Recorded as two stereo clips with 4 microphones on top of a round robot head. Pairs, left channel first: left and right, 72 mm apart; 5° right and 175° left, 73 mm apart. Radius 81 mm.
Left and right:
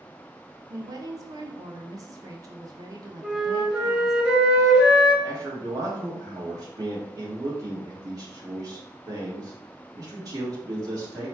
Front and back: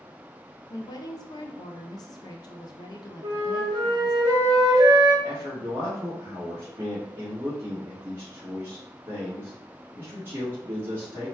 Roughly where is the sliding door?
I don't hear a sliding door.